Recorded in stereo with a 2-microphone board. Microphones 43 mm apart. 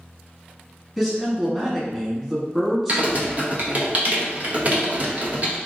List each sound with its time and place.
1.0 s a man speaking: 10° right (ahead or behind), 1.3 m
2.9 s typing on a keyboard: 35° right (ahead or behind), 0.6 m